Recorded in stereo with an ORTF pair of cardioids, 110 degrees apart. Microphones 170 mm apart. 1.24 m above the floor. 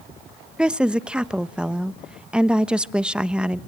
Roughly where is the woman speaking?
Ahead.